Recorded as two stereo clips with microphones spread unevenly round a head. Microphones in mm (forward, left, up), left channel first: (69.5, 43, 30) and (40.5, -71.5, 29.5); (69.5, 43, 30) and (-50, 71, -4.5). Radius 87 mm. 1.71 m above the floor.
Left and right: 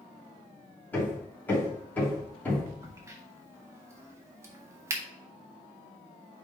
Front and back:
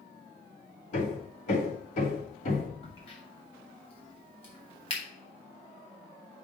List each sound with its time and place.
0.9 s hammering: straight ahead, 3 m
2.8 s a crack: 40° right, 1.7 m